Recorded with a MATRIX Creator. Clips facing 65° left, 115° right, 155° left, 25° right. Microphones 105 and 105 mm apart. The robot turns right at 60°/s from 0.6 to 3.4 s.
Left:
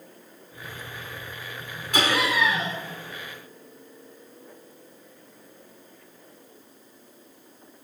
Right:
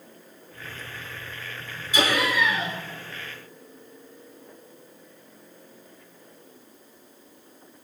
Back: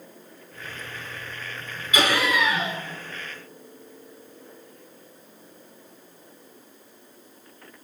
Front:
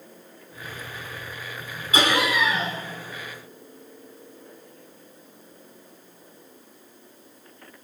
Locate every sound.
1.9 s laughter: 35° left, 4 m; by 2.8 s 85° left, 4 m